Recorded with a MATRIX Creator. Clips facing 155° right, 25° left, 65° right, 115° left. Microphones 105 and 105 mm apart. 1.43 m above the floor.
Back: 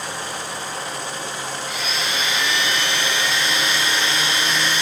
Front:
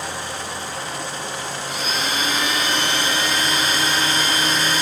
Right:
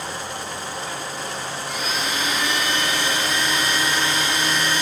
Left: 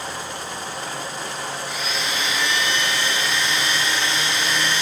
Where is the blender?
25° right, 1.1 m.